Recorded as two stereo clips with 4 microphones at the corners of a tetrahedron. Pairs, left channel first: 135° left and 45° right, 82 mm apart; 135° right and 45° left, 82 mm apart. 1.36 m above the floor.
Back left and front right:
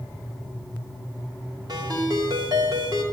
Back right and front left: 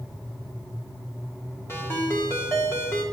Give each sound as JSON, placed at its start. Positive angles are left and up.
{"t": 1.7, "sound": "a ringtone", "azimuth_deg": -75, "distance_m": 2.5}